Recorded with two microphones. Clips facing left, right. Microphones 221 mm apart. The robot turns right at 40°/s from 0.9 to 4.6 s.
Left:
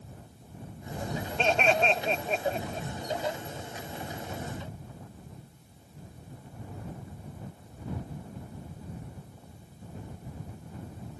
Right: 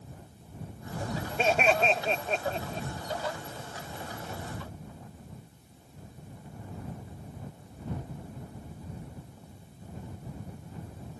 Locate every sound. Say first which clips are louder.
1.4 s laughter: even; 10° right (ahead or behind); by 2.9 s 10° left (ahead or behind)